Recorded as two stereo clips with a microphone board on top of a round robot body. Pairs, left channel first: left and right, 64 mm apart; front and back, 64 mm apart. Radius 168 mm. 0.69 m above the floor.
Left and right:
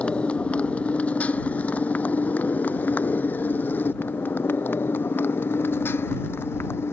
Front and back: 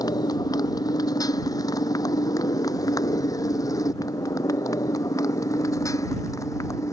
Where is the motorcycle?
20° left; by 6.9 s 35° left.